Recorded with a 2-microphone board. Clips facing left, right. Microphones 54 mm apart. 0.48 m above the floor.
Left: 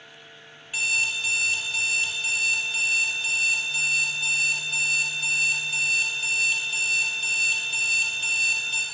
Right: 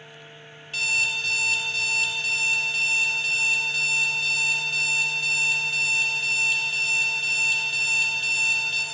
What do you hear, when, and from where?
0.7 s an alarm clock: 10° left (ahead or behind), 1.0 m